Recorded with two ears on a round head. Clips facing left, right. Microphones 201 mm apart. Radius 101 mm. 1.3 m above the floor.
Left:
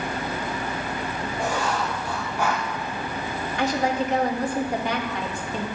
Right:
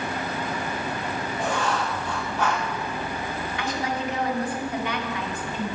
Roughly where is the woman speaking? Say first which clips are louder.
Left 6 dB; left.